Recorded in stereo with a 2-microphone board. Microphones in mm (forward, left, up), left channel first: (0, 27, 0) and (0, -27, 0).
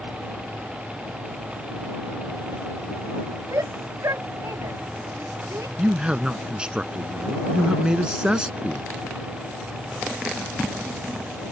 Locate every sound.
3.5 s a shout: 80° right; by 5.7 s 75° right (ahead or behind)
5.8 s a man speaking: 20° right (ahead or behind)